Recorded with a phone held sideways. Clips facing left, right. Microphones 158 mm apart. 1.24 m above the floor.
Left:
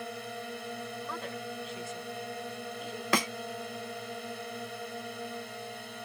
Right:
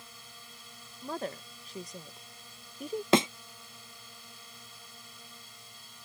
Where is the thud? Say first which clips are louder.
Right 6 dB; 25° right (ahead or behind).